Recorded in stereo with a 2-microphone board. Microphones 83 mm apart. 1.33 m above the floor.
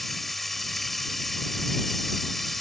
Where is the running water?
Centre (ahead or behind).